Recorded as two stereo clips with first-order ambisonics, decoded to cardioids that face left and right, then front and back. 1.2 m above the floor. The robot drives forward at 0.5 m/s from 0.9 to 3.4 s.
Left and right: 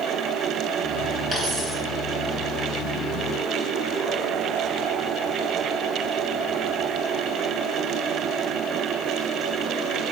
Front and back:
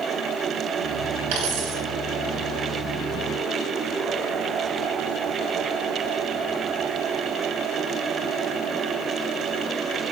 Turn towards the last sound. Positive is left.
turn(degrees=-175)